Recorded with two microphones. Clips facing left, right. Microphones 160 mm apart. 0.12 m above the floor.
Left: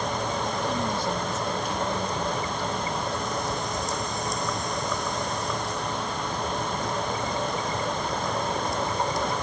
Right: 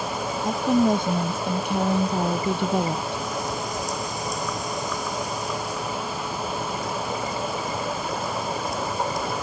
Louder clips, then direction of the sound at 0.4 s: Right 8 dB; 50° right (ahead or behind).